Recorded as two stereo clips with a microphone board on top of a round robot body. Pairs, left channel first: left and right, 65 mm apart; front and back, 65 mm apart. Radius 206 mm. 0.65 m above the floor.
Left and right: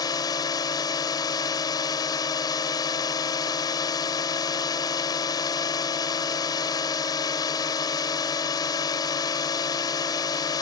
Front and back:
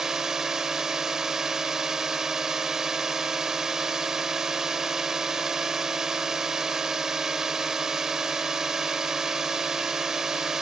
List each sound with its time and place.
0.0 s a drone: 100° left